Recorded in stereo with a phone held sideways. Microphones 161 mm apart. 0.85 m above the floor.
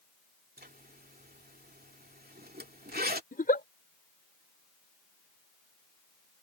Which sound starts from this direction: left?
A giggle, at 3.3 s.